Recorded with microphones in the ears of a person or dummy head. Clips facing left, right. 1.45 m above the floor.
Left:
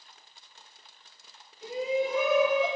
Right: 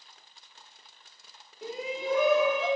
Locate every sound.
1.6 s a shout: 50° right (ahead or behind), 2.5 m; by 2.7 s 65° right (ahead or behind), 3 m